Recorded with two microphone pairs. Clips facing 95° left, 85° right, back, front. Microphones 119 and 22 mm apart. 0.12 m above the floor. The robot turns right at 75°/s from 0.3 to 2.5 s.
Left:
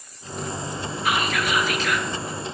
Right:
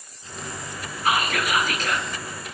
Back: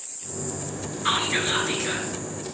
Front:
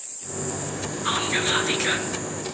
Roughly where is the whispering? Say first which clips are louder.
Right 1 dB, even; behind right.